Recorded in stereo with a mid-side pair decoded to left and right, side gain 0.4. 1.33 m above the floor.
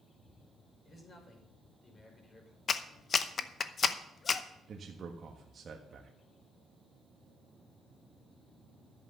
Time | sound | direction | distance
0.8 | a man speaking | 45° left | 5.5 m
2.7 | a clap | 50° left | 0.8 m
4.7 | a man speaking | 50° right | 1.4 m